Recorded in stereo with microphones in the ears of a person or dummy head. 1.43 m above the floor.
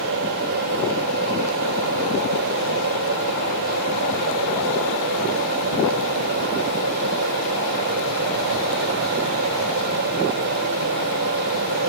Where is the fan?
65° right (ahead or behind), 3.5 m.